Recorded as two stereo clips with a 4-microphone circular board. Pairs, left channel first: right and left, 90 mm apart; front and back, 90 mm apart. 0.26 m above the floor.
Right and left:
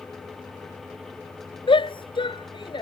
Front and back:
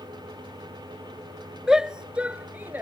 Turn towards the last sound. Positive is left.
turn(degrees=-110)